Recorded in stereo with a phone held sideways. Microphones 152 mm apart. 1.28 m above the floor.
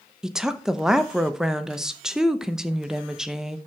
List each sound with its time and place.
0.2 s a woman speaking: 5° right (ahead or behind), 0.7 m